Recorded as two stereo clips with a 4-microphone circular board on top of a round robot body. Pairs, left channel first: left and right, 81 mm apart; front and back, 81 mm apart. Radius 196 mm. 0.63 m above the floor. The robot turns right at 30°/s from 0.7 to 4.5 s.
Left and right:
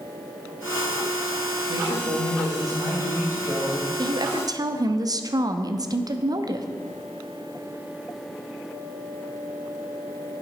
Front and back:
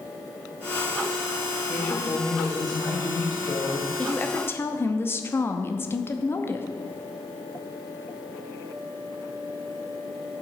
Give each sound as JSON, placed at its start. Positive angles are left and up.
{"t": 1.7, "sound": "a woman speaking", "azimuth_deg": -75, "distance_m": 4.0}
{"t": 4.0, "sound": "a woman speaking", "azimuth_deg": -70, "distance_m": 1.1}